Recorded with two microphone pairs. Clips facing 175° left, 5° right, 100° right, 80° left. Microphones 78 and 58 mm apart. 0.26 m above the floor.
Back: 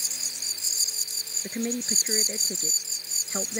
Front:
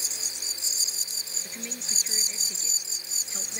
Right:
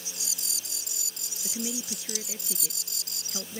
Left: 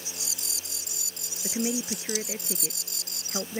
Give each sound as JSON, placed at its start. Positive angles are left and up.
{"t": 1.4, "sound": "a woman speaking", "azimuth_deg": 130}